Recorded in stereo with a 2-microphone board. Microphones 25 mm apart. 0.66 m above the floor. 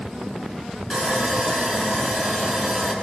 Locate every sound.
0.9 s sawing: 20° right (ahead or behind), 9 m